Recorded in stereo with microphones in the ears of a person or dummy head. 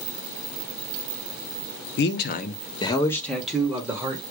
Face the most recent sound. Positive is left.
turn(degrees=-15)  # may be behind; listen again after turning